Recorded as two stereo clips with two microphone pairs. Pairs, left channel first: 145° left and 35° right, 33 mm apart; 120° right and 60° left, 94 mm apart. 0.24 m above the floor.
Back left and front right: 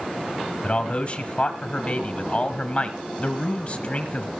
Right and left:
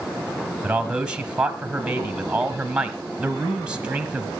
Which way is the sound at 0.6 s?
130° left.